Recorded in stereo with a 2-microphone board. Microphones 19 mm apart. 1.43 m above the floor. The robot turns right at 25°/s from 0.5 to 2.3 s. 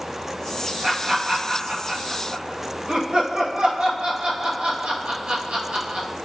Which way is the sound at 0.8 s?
45° right (ahead or behind).